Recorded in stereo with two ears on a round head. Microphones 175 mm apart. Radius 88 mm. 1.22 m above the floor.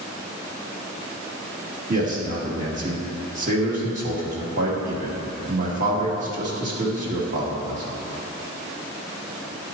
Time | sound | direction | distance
1.9 | a man speaking | 40° right (ahead or behind) | 1.7 m